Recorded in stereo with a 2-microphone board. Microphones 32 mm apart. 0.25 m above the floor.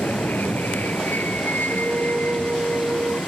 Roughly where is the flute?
Right.